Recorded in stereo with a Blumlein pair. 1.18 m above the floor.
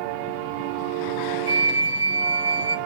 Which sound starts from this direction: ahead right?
A flute, at 1.5 s.